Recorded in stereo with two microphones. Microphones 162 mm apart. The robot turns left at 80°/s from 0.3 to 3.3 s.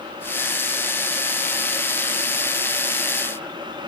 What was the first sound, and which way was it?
Only background noise.